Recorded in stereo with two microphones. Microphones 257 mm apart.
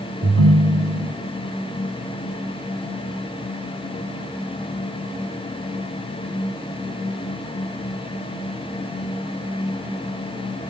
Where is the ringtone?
75° right (ahead or behind), 1.6 m.